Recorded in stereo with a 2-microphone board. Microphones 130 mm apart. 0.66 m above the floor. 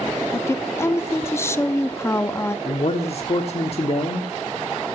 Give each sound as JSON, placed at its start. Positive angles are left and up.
{"t": 0.3, "sound": "a woman speaking", "side_deg": 20, "distance_m": 0.7}
{"t": 2.6, "sound": "a man speaking", "side_deg": 50, "distance_m": 1.4}